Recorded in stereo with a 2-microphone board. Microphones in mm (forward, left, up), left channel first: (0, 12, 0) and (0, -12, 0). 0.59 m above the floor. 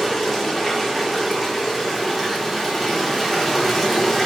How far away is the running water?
About 0.7 m.